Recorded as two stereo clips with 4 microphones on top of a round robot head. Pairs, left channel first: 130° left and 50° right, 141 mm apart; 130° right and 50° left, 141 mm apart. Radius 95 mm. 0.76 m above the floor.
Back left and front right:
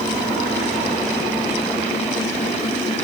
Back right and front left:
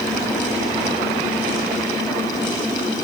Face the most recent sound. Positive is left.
No sound to turn to.